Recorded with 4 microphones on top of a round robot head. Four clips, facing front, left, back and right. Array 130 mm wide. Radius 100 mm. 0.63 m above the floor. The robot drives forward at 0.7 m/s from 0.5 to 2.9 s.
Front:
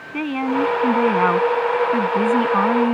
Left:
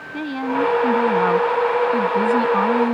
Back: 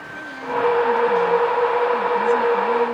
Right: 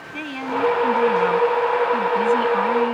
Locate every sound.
0.1 s a woman speaking: 20° left; by 2.9 s 25° left